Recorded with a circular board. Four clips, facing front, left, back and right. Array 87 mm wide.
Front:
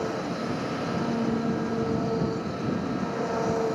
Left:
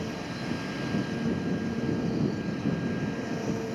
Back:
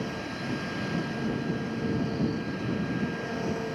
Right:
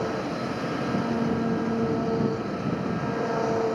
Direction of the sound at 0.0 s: 55° right.